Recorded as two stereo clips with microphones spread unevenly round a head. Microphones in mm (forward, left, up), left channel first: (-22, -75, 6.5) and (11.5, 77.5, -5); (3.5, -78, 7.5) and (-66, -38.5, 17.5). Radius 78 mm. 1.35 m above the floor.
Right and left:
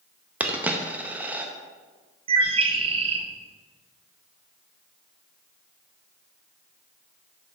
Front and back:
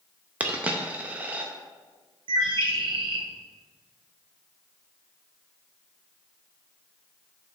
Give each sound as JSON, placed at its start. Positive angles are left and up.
{"t": 0.4, "sound": "a dropped coin", "azimuth_deg": 155, "distance_m": 0.6}
{"t": 2.3, "sound": "a bird", "azimuth_deg": 135, "distance_m": 0.6}